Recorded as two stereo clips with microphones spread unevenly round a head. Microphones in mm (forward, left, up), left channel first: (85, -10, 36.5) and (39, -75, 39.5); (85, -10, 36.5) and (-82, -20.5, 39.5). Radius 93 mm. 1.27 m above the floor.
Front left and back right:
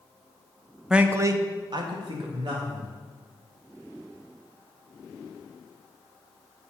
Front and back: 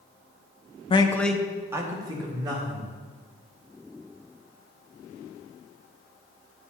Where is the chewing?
No chewing in this recording.